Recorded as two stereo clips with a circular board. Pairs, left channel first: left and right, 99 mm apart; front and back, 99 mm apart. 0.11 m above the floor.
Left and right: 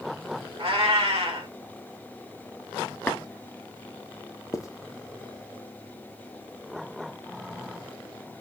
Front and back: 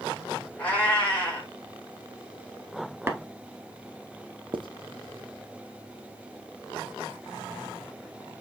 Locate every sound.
0.6 s a cat meowing: 75° right, 3.5 m
3.1 s tapping: 150° left, 0.7 m
4.5 s writing: 145° left, 0.5 m